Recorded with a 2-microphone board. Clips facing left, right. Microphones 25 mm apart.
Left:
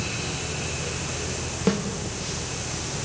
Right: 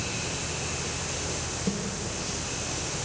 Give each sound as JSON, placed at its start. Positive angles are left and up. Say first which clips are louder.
{"t": 1.7, "sound": "a snare drum", "louder": "left 9 dB", "side_deg": 55, "distance_m": 1.9}